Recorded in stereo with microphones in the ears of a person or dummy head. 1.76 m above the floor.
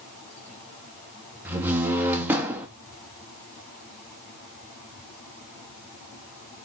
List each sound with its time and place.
1.4 s a door slam: 10° right (ahead or behind), 2 m